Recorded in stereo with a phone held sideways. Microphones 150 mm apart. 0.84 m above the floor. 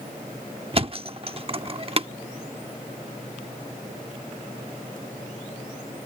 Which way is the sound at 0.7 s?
40° right (ahead or behind).